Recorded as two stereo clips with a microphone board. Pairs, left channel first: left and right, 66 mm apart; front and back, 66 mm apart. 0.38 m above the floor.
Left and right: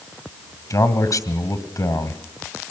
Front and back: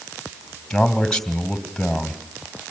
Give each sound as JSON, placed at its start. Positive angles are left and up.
{"t": 0.7, "sound": "a man speaking", "azimuth_deg": 80, "distance_m": 2.0}